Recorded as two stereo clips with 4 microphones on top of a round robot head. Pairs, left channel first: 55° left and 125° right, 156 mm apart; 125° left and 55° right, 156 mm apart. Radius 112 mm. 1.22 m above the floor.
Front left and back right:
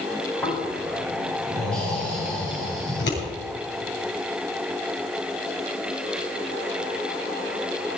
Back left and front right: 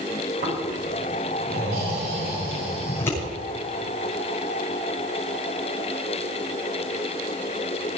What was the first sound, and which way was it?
Snoring, 30° right.